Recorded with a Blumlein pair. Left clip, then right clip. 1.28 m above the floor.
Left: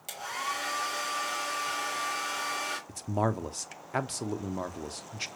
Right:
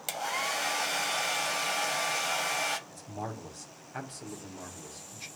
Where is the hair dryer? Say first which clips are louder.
Right 2 dB; 65° right, 1.6 m.